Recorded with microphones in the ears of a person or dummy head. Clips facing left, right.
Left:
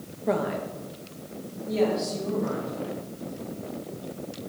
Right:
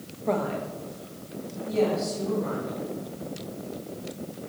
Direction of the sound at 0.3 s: 15° left (ahead or behind).